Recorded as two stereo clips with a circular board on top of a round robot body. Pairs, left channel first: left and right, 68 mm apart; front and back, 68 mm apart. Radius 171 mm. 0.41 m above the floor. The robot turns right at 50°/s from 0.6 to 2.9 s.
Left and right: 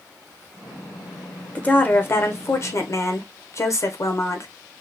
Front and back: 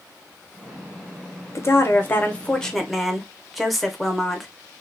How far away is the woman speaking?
About 1.0 m.